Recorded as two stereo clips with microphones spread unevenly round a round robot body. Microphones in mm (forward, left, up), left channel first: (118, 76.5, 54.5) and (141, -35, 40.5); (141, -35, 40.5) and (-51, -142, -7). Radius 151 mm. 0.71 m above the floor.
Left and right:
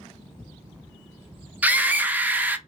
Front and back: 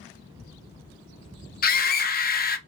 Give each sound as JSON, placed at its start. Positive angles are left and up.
{"t": 1.6, "sound": "a scream", "azimuth_deg": -15, "distance_m": 0.8}